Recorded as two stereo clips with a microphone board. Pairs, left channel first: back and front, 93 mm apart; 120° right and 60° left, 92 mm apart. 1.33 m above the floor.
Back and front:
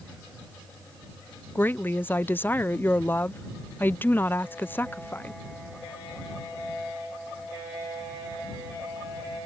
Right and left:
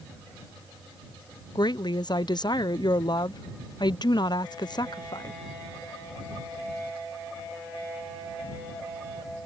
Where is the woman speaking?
120° right.